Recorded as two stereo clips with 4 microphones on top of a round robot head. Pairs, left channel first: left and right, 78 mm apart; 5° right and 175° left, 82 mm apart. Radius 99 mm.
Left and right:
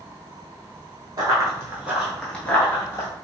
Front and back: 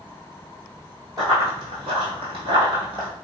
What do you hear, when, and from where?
1.2 s running footsteps: 125° right, 0.9 m; by 3.1 s 140° left, 0.9 m